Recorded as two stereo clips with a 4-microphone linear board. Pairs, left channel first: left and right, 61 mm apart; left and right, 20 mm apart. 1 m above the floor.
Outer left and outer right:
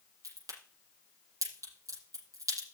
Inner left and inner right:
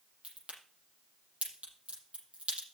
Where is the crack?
65° right (ahead or behind), 7 m.